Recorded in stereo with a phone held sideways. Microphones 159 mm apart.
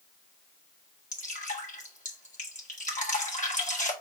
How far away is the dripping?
About 1.3 m.